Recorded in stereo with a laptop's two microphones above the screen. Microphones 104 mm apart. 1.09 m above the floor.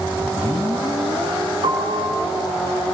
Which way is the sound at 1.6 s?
80° right.